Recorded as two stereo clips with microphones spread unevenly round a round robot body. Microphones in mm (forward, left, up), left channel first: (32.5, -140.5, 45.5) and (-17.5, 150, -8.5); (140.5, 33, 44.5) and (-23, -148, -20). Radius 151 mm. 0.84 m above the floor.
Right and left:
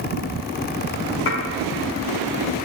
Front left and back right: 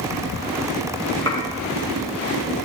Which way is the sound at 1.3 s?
30° right.